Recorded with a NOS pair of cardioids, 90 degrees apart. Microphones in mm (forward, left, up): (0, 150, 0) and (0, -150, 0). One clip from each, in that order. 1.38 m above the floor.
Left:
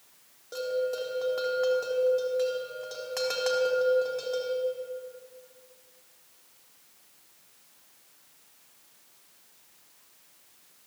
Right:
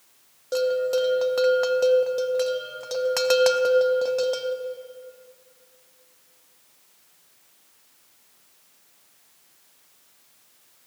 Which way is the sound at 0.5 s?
50° right.